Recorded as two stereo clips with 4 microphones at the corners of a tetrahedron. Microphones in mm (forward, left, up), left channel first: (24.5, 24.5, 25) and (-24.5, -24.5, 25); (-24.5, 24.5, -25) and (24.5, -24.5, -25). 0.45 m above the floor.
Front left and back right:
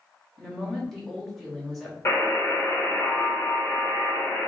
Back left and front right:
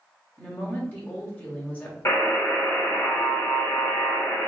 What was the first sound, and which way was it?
A woman speaking, 130° left.